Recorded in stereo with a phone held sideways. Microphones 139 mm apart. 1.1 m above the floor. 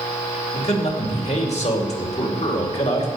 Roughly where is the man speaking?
Left.